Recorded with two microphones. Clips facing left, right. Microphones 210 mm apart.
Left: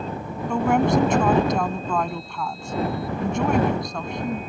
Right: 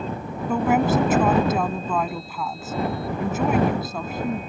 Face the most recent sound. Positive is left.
turn(degrees=-5)  # may be behind; listen again after turning